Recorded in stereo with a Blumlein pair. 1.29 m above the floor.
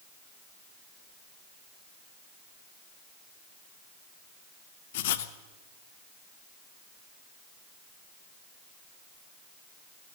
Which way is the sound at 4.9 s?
55° left.